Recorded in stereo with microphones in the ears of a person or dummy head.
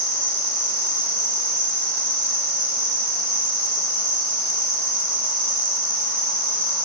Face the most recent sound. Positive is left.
turn(degrees=-50)  # may be behind; listen again after turning